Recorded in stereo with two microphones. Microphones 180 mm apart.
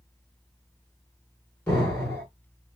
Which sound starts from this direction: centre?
An explosion, at 1.7 s.